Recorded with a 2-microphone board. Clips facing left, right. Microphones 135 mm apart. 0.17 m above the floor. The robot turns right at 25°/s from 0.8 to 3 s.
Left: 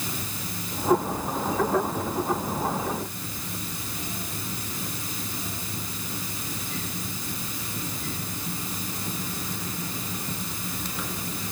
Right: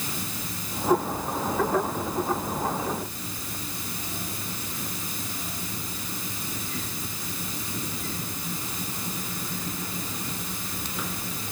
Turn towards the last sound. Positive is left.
No sound to turn to.